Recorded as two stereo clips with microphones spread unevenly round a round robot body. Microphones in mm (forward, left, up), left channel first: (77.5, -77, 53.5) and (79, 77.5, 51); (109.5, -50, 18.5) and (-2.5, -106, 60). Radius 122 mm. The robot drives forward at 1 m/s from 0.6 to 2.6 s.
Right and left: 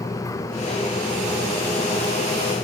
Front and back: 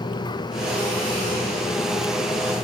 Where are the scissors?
No scissors in this recording.